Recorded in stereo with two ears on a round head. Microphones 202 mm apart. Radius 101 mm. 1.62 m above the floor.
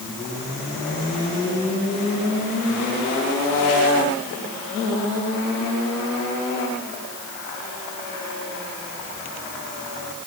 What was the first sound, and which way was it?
Only background noise.